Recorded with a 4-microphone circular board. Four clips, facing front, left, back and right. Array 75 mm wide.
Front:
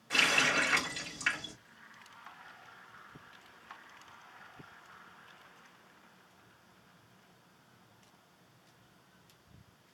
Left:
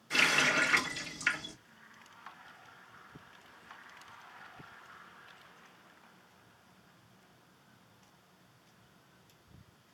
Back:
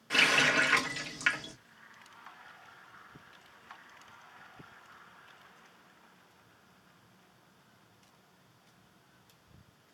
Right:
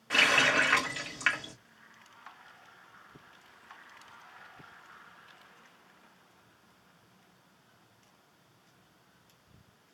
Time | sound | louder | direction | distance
0.1 | a running tap | right 3 dB, back 3 dB | 110° right | 2 m